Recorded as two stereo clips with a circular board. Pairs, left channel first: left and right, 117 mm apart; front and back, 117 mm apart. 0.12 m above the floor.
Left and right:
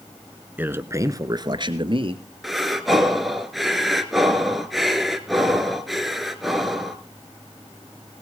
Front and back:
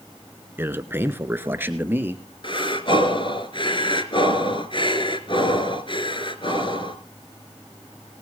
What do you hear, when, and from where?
0.6 s a man speaking: 140° right, 1.3 m; by 2.2 s 110° right, 2 m
2.4 s breathing: straight ahead, 1.5 m